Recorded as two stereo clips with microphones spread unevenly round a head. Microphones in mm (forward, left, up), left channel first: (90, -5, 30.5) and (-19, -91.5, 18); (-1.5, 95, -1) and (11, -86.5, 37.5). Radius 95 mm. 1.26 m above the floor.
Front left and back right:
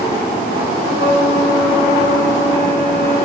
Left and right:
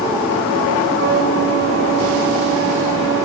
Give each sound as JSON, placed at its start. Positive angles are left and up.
{"t": 0.9, "sound": "a flute", "azimuth_deg": -120, "distance_m": 9.5}